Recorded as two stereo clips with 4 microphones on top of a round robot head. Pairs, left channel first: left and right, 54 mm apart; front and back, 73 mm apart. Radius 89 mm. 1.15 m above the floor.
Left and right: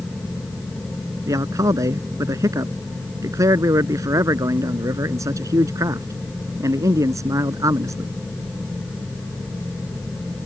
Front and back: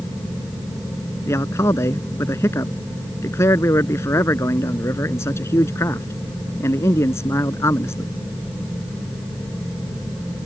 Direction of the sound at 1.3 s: 60° right.